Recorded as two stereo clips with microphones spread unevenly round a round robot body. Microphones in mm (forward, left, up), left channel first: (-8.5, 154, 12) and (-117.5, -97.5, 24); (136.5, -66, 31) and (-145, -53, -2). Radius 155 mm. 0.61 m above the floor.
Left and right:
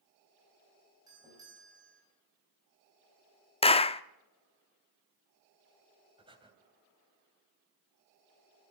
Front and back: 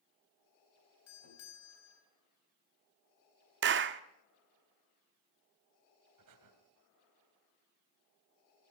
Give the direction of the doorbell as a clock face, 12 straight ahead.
1 o'clock.